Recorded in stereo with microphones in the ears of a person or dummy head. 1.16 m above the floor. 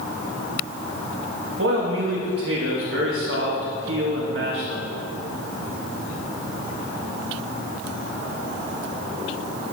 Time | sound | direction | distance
1.6 | a man speaking | 65° right (ahead or behind) | 1.8 m